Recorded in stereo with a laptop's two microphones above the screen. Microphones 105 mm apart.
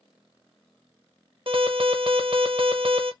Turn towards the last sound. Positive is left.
turn(degrees=-55)  # may be behind; listen again after turning